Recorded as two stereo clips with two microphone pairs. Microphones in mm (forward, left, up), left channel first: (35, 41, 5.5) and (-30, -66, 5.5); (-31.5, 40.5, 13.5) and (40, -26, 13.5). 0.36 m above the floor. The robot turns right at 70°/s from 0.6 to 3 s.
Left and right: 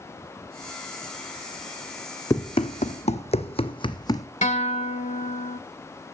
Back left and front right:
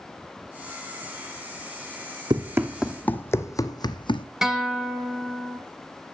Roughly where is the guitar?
Ahead left.